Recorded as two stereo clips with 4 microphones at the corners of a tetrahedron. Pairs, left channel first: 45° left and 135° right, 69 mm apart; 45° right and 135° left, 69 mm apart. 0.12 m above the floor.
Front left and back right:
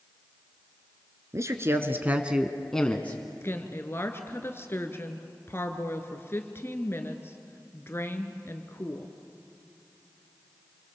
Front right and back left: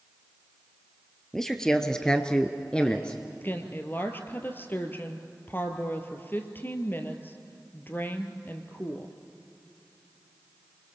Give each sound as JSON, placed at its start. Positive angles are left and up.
{"t": 1.3, "sound": "a man speaking", "azimuth_deg": -125, "distance_m": 1.9}
{"t": 3.4, "sound": "a woman speaking", "azimuth_deg": 5, "distance_m": 1.9}